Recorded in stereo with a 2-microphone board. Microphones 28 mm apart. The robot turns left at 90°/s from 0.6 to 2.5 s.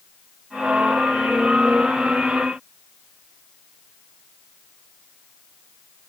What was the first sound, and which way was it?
Only background noise.